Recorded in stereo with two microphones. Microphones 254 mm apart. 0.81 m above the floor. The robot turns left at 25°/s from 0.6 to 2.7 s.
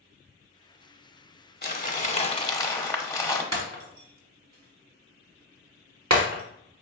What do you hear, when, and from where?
1.6 s crumpling: 40° left (ahead or behind), 0.9 m; by 3.4 s 10° left (ahead or behind), 0.9 m
3.5 s breaking glass: 85° right, 1.1 m